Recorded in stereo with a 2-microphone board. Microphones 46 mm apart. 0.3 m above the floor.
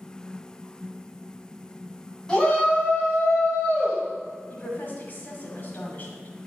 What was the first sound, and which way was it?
A shout, 10° left (ahead or behind).